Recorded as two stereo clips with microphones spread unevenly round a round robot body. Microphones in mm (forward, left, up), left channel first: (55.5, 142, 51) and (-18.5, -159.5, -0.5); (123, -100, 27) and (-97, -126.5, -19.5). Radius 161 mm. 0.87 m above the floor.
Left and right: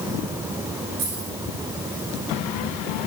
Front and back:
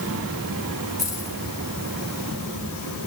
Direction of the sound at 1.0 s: 85° right.